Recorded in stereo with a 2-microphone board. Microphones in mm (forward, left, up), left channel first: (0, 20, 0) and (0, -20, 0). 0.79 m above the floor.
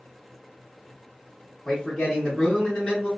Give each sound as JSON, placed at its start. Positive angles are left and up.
{"t": 1.6, "sound": "a man speaking", "side_deg": 25, "distance_m": 1.0}